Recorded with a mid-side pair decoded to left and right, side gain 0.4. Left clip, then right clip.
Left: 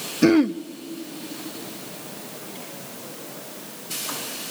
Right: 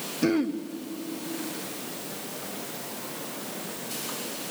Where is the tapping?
I don't hear tapping.